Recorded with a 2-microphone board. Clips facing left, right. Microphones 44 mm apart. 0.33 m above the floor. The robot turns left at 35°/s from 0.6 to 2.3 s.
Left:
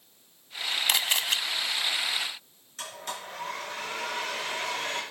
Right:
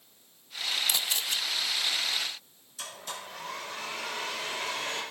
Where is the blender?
55° left (ahead or behind), 6 m.